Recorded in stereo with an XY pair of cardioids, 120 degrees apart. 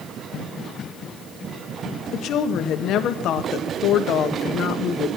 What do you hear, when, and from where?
2.1 s a woman speaking: 65° left, 1.4 m